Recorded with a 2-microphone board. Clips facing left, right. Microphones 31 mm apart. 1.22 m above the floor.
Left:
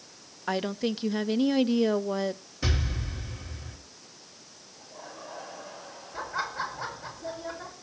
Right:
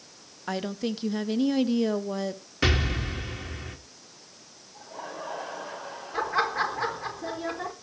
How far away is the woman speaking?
About 0.7 m.